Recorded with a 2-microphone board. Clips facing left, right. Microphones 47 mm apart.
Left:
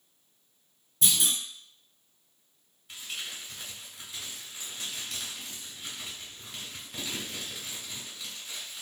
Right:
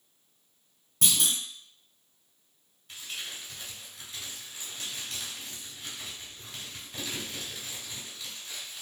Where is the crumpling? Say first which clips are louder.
Left 1 dB; 5° left (ahead or behind), 1.6 m.